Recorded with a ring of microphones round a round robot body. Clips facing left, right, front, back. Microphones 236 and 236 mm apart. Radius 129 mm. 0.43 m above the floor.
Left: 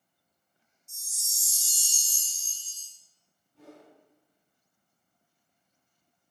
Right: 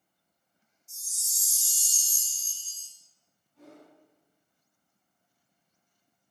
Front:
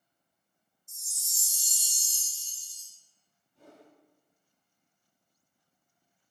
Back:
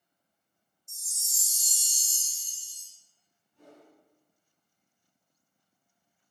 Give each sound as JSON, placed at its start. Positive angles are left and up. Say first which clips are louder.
{"t": 0.9, "sound": "a chime", "louder": "left 3 dB, back 1 dB", "azimuth_deg": 180, "distance_m": 0.7}
{"t": 3.5, "sound": "a whoosh", "louder": "left 1 dB, back 1 dB", "azimuth_deg": 45, "distance_m": 1.9}